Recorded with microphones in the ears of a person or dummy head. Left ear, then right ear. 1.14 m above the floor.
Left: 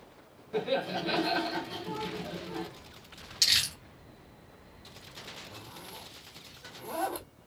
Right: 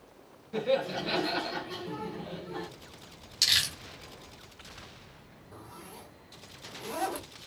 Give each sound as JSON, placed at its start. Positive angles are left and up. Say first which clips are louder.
{"t": 0.5, "sound": "laughter", "louder": "right 2 dB", "side_deg": 0, "distance_m": 1.1}
{"t": 3.4, "sound": "crumpling", "louder": "even", "side_deg": 0, "distance_m": 1.6}
{"t": 5.5, "sound": "a zipper", "louder": "left 2 dB", "side_deg": -5, "distance_m": 1.9}